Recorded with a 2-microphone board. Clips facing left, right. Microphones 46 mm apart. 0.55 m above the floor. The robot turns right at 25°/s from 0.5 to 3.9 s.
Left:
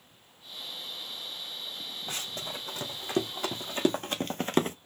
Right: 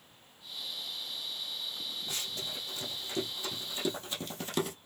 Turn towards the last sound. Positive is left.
turn(degrees=40)  # may be behind; listen again after turning